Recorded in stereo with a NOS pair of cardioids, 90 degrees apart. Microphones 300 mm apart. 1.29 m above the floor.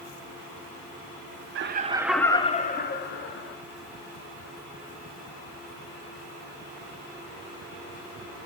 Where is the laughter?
45° right, 0.5 m; by 3.6 s 45° left, 1.3 m.